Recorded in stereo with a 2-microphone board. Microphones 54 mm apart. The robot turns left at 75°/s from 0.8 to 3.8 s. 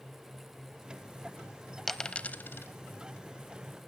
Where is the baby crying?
I don't hear a baby crying.